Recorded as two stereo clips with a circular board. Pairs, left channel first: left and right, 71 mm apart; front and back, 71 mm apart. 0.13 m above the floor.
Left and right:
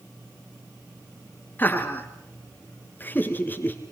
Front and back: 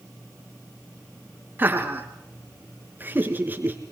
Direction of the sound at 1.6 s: 135° left.